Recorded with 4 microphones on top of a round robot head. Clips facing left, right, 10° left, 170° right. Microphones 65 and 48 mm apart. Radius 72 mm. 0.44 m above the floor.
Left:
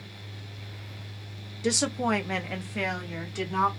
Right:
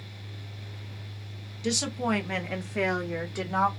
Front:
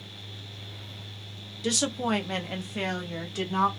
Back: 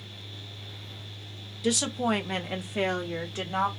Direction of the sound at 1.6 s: 105° left.